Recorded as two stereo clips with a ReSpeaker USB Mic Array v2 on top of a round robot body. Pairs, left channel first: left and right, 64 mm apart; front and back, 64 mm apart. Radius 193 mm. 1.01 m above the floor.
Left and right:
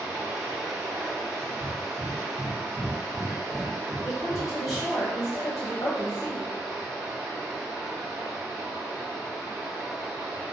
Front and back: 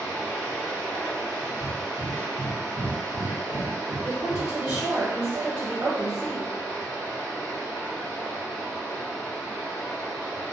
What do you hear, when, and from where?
0.0 s running water: 45° right, 1.1 m
1.6 s breathing: 5° right, 0.6 m
4.0 s a woman speaking: 110° left, 1.0 m